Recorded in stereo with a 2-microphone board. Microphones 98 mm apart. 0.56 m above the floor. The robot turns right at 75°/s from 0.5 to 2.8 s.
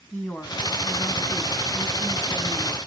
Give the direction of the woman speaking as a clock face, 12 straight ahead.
11 o'clock.